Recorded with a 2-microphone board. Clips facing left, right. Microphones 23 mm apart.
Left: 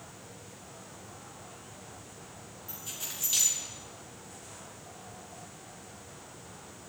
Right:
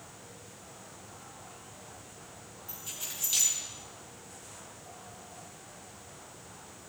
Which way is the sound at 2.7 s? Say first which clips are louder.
Even; 5° right (ahead or behind).